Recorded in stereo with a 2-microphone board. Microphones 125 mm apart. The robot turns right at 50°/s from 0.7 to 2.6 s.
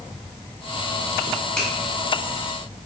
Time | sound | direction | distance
1.6 | a finger snap | 5° left (ahead or behind) | 1.2 m